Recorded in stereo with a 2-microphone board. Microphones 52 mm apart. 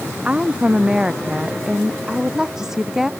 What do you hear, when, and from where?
0.2 s a woman speaking: 20° right (ahead or behind); by 3.1 s 5° right (ahead or behind)